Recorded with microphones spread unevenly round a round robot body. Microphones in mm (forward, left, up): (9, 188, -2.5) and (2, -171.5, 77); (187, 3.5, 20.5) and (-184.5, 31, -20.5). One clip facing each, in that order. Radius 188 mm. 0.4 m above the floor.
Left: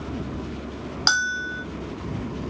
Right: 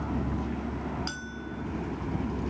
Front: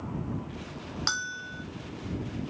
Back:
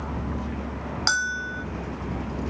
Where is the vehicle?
165° right; by 2.5 s 175° right.